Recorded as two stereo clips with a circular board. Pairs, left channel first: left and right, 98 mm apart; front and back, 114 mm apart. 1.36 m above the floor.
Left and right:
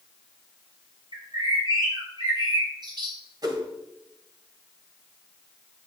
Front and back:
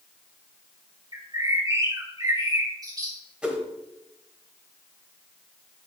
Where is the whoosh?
100° right, 1.4 m.